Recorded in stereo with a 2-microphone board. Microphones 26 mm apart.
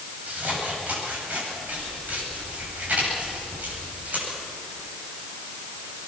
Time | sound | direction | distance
0.3 | scissors | 70° right (ahead or behind) | 9 m